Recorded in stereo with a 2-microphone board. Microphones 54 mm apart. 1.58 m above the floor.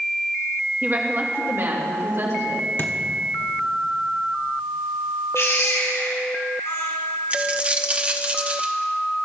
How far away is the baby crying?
About 4.5 m.